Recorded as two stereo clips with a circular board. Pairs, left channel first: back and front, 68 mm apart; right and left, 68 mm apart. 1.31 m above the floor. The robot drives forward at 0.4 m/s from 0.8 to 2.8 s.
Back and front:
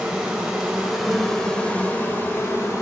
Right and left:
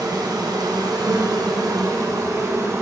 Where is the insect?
75° left, 0.7 m; by 2.8 s 135° left, 0.9 m.